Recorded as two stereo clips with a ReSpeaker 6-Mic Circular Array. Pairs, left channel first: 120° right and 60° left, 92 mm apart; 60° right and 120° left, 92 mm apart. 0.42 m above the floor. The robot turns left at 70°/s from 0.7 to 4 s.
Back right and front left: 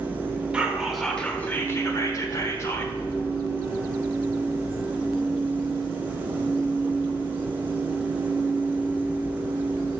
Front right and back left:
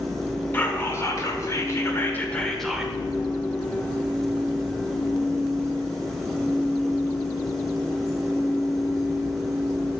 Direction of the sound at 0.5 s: 10° right.